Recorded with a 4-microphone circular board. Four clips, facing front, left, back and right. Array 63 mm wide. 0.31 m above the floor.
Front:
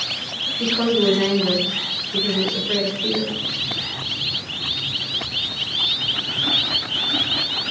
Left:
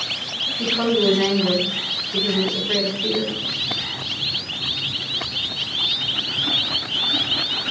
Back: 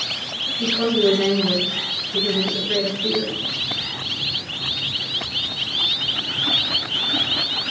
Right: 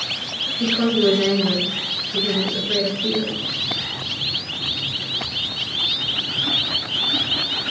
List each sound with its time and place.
0.6 s a woman speaking: 65° left, 2.5 m